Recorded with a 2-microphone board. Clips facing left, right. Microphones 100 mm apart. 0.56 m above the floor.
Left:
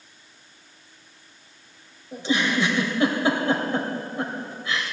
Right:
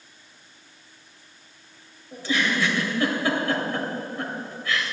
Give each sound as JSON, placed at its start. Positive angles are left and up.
{"t": 2.1, "sound": "a giggle", "side_deg": 20, "distance_m": 2.5}